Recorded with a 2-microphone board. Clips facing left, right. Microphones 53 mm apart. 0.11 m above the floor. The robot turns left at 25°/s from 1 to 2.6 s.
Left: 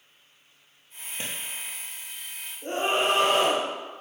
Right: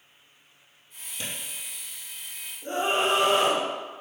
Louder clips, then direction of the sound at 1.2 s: Left 1 dB; 35° left (ahead or behind).